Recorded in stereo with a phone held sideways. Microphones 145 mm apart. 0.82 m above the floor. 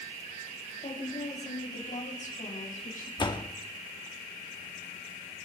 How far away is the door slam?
About 0.8 m.